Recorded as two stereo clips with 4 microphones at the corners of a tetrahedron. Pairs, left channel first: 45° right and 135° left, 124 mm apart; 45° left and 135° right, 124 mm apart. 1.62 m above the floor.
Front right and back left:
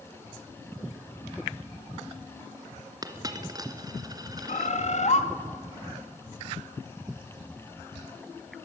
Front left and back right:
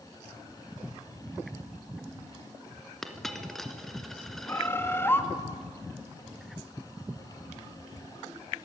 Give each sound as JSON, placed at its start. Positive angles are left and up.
{"t": 3.0, "sound": "a dropped coin", "azimuth_deg": 130, "distance_m": 1.7}
{"t": 4.5, "sound": "a bird", "azimuth_deg": -25, "distance_m": 1.7}